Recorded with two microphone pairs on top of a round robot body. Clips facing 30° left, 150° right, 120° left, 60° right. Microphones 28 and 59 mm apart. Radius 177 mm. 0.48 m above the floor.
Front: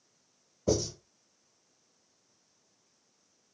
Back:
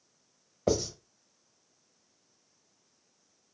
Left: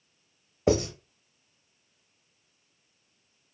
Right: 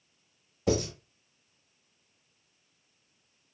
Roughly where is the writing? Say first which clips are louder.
Back 1 dB, left 4 dB; behind.